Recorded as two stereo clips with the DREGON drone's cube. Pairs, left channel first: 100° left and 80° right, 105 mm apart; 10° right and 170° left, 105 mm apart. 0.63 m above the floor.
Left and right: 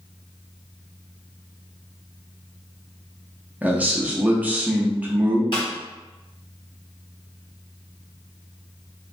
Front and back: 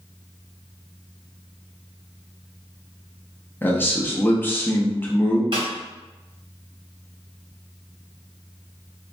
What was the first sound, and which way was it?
A man speaking, 35° right.